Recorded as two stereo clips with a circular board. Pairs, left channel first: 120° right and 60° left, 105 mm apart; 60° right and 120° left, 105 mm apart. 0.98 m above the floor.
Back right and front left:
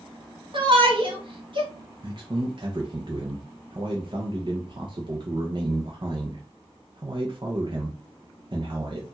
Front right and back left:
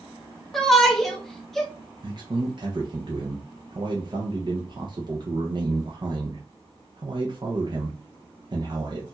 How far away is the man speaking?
About 0.8 m.